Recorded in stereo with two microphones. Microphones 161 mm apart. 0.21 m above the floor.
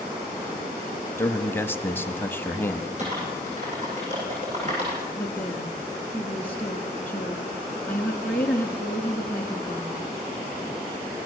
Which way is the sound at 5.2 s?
10° left (ahead or behind).